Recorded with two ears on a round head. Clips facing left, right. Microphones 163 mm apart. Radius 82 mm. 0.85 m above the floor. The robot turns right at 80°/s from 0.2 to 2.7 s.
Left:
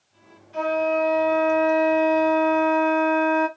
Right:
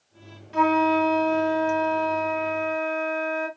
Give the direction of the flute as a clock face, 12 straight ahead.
3 o'clock.